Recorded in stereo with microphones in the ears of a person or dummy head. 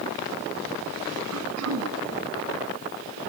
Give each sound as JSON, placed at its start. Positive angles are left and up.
{"t": 1.3, "sound": "throat clearing", "side_deg": -85, "distance_m": 2.0}